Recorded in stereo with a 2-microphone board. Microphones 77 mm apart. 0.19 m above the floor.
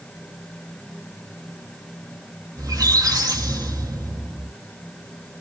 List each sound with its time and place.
2.6 s a squeak: 50° right (ahead or behind), 0.9 m